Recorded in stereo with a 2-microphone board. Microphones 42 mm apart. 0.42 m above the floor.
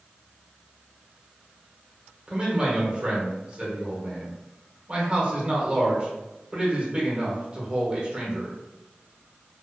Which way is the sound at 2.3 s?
25° right (ahead or behind).